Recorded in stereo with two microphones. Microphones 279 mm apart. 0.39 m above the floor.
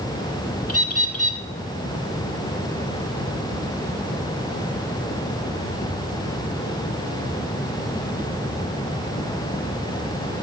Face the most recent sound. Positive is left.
turn(degrees=60)  # may be behind; listen again after turning